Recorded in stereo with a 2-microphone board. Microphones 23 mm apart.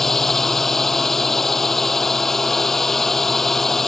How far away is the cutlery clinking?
No cutlery clinking in this recording.